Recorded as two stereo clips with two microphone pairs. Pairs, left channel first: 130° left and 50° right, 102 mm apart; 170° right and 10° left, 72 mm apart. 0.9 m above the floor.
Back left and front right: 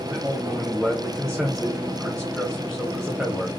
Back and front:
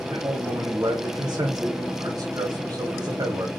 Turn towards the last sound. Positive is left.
turn(degrees=40)